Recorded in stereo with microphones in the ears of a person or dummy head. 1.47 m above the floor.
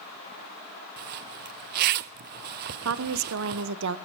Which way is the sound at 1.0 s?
50° right (ahead or behind).